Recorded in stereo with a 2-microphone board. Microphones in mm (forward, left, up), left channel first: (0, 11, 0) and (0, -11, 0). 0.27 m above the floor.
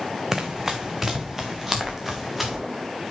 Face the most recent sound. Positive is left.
turn(degrees=-10)  # may be behind; listen again after turning